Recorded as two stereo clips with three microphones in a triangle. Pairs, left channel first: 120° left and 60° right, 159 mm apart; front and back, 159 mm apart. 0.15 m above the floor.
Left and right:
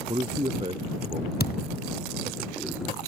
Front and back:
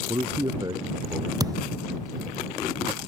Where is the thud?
110° left.